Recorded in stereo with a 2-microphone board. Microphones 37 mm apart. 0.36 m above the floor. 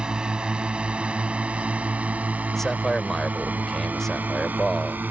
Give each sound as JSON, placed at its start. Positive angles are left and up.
{"t": 0.0, "sound": "a drone", "side_deg": -25}
{"t": 2.5, "sound": "a man speaking", "side_deg": 10}